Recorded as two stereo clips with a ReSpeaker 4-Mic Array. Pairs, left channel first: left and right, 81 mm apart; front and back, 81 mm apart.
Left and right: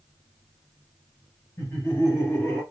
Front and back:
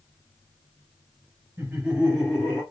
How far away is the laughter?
About 1.9 m.